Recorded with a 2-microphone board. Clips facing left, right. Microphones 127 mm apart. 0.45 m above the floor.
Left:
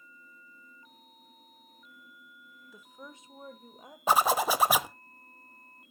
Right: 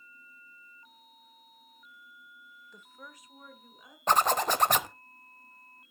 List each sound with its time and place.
2.7 s a woman speaking: 5° left (ahead or behind), 1.1 m; by 4.0 s 50° left (ahead or behind), 1.7 m
4.1 s a zipper: 10° left (ahead or behind), 0.6 m